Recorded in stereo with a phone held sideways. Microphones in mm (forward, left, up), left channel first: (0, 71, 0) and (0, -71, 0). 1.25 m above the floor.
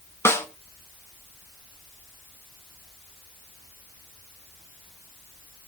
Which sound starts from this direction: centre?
A snare drum, at 0.2 s.